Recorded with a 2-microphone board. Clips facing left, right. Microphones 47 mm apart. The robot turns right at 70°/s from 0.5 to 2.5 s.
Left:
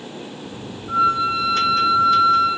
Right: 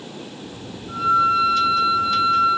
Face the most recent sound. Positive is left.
turn(degrees=155)